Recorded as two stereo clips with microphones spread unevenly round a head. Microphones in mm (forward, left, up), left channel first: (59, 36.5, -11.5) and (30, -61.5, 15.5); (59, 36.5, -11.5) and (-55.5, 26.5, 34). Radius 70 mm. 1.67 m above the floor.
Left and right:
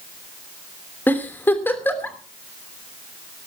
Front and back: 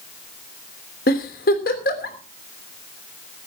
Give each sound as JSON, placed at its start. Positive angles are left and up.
{"t": 1.1, "sound": "a giggle", "azimuth_deg": -5, "distance_m": 3.0}